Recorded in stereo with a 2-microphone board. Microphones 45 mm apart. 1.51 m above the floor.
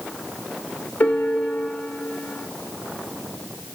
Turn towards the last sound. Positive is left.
turn(degrees=30)  # may be behind; listen again after turning